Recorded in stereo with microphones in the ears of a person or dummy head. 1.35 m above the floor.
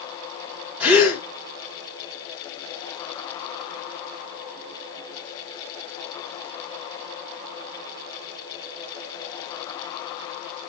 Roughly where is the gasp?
Centre.